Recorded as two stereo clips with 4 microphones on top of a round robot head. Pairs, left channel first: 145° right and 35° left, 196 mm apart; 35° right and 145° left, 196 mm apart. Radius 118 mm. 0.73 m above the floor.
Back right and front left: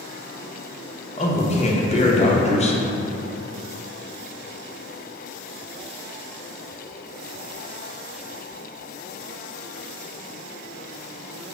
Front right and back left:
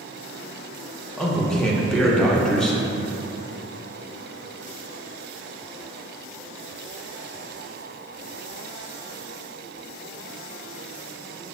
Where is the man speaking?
120° right, 0.7 m.